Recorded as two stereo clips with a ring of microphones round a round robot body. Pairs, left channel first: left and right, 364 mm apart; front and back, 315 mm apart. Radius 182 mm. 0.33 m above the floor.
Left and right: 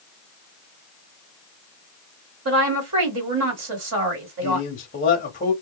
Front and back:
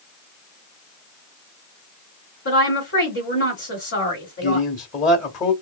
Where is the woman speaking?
50° right, 1.4 m.